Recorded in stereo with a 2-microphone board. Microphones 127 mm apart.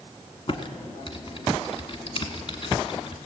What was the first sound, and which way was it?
Typing on a keyboard, 45° left (ahead or behind).